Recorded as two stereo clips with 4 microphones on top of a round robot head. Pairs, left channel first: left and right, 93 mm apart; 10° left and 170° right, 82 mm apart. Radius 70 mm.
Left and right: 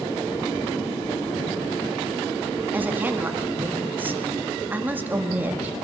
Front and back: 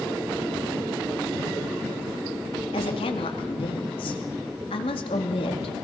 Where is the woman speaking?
20° right, 2 m.